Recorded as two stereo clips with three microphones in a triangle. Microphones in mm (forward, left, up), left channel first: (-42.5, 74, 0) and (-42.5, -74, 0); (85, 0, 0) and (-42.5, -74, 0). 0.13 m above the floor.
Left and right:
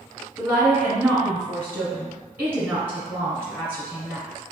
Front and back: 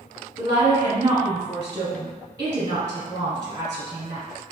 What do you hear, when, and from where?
0.4 s a woman speaking: 150° right, 1.2 m